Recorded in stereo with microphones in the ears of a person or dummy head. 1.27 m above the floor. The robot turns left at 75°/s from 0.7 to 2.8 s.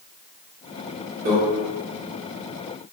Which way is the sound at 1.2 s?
45° right (ahead or behind).